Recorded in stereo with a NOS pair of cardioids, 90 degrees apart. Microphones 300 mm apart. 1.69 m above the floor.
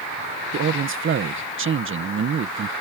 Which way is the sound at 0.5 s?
40° right.